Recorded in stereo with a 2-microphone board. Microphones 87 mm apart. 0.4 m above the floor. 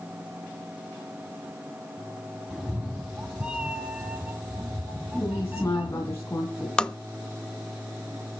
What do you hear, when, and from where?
2.5 s a cat meowing: centre (ahead or behind), 1.1 m; by 6.1 s 20° right (ahead or behind), 3.5 m
5.1 s a woman speaking: 30° left (ahead or behind), 3 m
6.8 s tapping: 10° left (ahead or behind), 0.7 m